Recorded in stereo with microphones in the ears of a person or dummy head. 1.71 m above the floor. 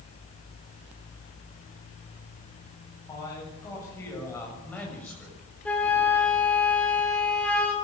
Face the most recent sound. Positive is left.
turn(degrees=5)  # may be behind; listen again after turning